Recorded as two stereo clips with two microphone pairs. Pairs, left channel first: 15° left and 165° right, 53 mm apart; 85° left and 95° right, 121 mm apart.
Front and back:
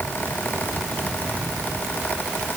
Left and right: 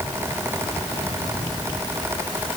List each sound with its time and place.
Only background noise.